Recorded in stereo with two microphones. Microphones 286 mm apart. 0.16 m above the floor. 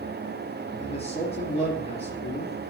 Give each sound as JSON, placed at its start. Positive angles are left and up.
{"t": 0.8, "sound": "a man speaking", "side_deg": 20, "distance_m": 3.0}